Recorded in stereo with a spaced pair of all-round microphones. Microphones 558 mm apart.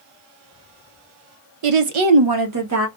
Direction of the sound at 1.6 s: 75° right (ahead or behind).